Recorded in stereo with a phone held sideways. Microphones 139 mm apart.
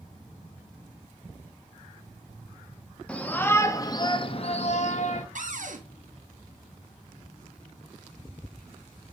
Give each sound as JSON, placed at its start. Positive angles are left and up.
{"t": 3.1, "sound": "a shout", "side_deg": 10, "distance_m": 1.0}
{"t": 5.3, "sound": "a cupboard door", "side_deg": -65, "distance_m": 1.0}